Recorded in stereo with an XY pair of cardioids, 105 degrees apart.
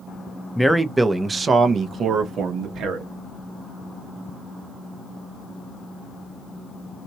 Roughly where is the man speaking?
Ahead.